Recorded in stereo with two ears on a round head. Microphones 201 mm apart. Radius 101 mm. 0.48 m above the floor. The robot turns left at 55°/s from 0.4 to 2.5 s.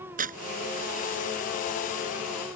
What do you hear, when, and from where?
0.2 s tearing paper: 40° right (ahead or behind)